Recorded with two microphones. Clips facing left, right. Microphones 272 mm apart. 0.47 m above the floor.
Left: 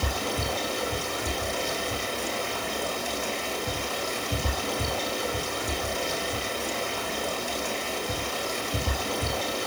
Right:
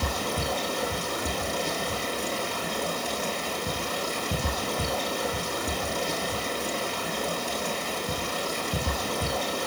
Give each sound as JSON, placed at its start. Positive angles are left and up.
{"t": 0.0, "sound": "running water", "side_deg": -50, "distance_m": 8.0}